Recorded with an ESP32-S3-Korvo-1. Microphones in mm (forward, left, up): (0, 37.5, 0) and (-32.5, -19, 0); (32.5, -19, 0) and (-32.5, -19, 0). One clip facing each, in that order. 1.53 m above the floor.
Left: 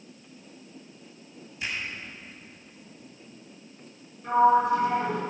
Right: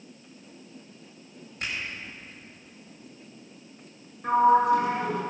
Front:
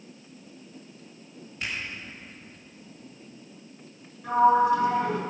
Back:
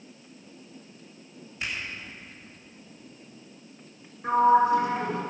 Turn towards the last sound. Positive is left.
turn(degrees=-125)